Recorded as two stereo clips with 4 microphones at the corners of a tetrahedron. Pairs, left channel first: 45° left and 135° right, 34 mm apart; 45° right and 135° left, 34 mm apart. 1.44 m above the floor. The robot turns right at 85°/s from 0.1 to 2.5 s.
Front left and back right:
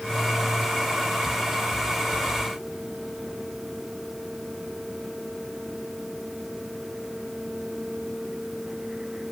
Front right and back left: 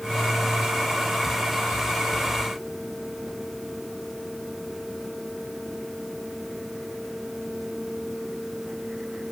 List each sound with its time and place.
Only background noise.